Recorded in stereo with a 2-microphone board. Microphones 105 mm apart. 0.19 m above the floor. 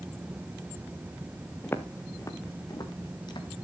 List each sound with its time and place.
1.6 s footsteps: 20° left (ahead or behind), 1.8 m; by 3.6 s 45° left (ahead or behind), 3 m